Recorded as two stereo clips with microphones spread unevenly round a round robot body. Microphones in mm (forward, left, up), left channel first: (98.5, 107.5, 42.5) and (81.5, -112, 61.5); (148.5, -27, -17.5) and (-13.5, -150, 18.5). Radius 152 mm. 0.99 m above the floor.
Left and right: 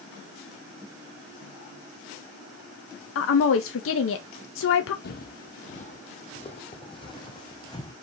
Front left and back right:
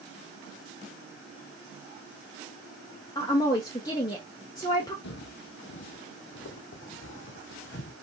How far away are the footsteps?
About 1.3 m.